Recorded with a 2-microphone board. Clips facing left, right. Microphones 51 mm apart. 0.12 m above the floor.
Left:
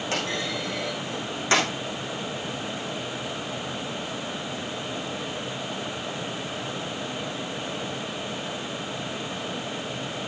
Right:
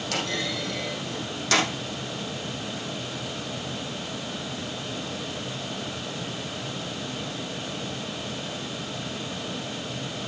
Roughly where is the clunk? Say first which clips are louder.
Even; left.